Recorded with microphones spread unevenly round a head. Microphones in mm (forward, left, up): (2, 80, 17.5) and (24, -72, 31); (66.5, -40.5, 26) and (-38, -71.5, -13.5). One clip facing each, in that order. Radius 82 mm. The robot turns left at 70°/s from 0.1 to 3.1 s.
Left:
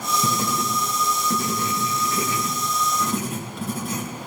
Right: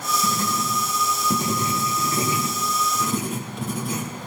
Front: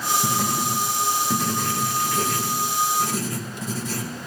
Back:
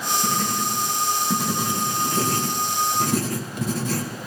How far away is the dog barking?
No dog barking in this recording.